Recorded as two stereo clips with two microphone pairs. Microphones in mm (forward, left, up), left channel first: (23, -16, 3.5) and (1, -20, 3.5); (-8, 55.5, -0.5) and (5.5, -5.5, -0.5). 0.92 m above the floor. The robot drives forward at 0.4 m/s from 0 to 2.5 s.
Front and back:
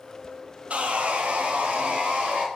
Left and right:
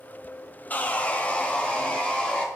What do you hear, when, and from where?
0.7 s sawing: 160° left, 0.5 m; by 2.5 s 170° left, 1.2 m